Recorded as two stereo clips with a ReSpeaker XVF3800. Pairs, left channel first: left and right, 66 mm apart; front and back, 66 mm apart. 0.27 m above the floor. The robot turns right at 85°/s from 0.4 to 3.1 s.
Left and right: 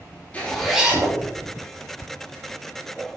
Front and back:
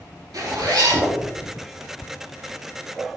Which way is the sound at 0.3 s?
160° left.